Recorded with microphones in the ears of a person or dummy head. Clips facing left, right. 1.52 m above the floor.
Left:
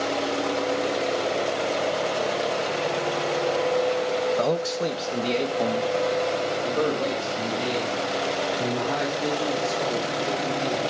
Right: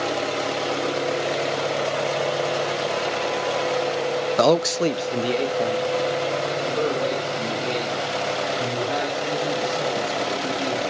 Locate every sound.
4.4 s a man speaking: 70° right (ahead or behind), 0.6 m; by 10.9 s 20° left (ahead or behind), 7.5 m